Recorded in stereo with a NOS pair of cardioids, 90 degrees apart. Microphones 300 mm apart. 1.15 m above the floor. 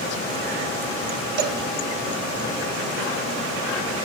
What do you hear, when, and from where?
1.4 s a cowbell: 50° right, 1.0 m